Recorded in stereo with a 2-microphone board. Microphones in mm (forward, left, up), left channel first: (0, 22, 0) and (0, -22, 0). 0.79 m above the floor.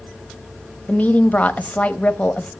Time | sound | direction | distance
0.9 | a woman speaking | 35° left (ahead or behind) | 1.0 m